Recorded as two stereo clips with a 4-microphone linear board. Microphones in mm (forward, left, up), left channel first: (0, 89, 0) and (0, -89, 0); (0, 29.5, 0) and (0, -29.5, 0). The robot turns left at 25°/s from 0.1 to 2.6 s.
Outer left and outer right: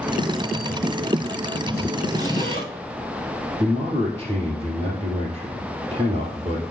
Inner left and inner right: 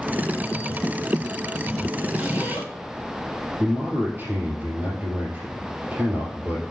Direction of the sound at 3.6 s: 30° right (ahead or behind).